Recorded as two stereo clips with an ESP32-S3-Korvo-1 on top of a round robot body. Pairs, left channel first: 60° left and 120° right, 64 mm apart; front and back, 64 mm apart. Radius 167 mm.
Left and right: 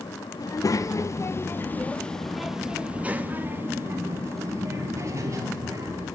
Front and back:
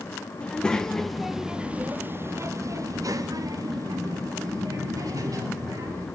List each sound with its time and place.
0.4 s a child speaking: 70° left, 1.2 m; by 6.1 s 155° right, 2.5 m